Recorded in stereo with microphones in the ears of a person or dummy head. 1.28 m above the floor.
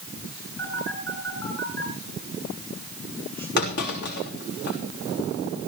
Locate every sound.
0.6 s a phone buzzing: 15° left (ahead or behind), 9 m
3.6 s a clunk: 55° left (ahead or behind), 5 m